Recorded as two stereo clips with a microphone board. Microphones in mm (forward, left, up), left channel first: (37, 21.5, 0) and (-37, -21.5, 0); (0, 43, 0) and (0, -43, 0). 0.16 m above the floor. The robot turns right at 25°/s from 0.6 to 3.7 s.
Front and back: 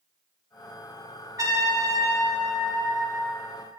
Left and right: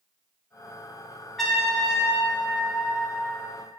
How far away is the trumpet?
About 2.5 m.